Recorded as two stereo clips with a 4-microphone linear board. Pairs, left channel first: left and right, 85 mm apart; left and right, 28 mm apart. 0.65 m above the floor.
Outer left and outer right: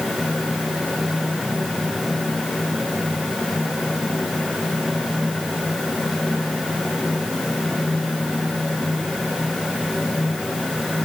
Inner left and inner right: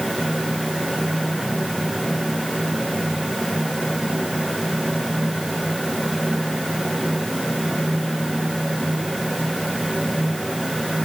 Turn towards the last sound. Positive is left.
No sound to turn to.